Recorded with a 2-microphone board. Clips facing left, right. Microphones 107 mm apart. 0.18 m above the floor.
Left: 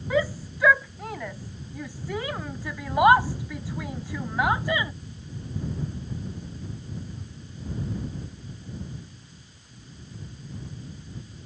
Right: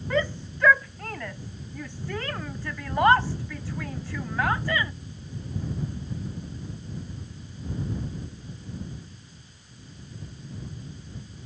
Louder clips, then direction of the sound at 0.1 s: Left 2 dB; 5° left (ahead or behind).